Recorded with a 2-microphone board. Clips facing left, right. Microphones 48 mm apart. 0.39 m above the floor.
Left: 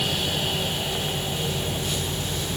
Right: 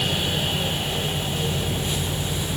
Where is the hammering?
No hammering in this recording.